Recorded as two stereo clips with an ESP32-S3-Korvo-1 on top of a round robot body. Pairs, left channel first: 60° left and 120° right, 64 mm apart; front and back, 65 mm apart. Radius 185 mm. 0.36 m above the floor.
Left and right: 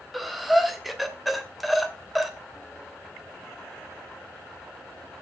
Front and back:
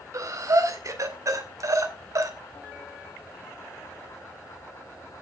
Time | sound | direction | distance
0.1 | breathing | 150° left | 2.5 m